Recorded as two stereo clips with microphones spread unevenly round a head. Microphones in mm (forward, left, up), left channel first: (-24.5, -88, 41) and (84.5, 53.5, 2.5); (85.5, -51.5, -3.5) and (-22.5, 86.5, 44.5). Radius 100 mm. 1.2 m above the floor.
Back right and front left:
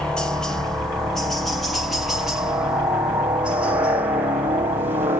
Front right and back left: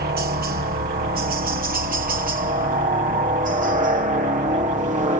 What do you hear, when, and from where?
0.0 s a helicopter: 130° left; by 5.2 s 90° left